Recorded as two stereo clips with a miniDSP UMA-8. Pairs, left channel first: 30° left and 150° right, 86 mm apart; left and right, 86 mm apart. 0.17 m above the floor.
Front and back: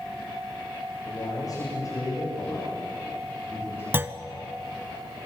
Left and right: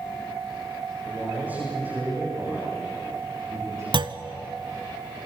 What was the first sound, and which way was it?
A man speaking, 15° right.